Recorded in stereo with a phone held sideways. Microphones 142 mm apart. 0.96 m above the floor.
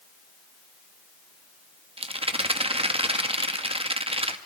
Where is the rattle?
40° right (ahead or behind), 1.2 m.